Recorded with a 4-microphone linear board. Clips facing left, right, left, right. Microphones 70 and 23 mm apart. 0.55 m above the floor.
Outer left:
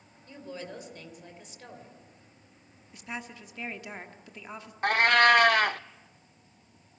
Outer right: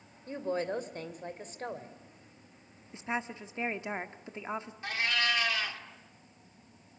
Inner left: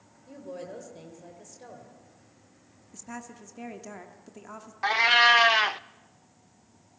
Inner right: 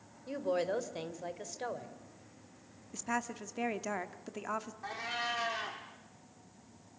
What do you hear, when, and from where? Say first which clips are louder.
0.3 s a woman speaking: outer right 8 dB, inner right 7 dB; 40° right (ahead or behind), 2.5 m
2.9 s a woman speaking: outer right 5 dB, inner right 6 dB; 25° right (ahead or behind), 1.4 m
4.8 s a cat meowing: outer left 12 dB, inner left 20 dB; 55° left (ahead or behind), 0.6 m